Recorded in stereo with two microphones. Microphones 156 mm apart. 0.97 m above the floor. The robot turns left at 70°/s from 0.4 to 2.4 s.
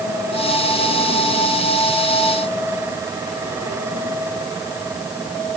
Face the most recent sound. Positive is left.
No sound to turn to.